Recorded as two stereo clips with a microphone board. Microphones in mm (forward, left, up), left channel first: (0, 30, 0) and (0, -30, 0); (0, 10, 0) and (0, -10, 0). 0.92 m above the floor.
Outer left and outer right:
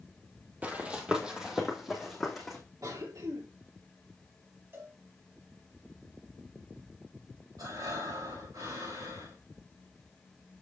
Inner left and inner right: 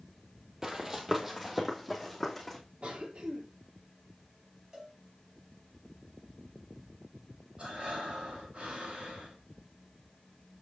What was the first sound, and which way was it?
Running footsteps, 25° right (ahead or behind).